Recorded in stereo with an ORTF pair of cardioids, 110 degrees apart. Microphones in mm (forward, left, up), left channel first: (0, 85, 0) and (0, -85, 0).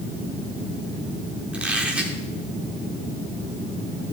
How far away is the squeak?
About 1.8 m.